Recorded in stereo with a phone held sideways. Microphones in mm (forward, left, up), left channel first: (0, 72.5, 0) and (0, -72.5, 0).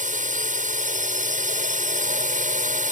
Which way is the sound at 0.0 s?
60° right (ahead or behind).